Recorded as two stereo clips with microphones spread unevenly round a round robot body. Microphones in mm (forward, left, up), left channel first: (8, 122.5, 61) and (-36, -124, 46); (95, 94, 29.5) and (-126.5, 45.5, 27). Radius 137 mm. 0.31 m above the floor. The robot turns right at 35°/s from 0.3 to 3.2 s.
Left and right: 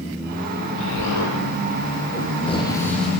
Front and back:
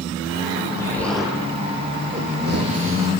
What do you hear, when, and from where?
0.8 s an explosion: 90° left, 7.5 m; by 3.1 s 170° left, 7.5 m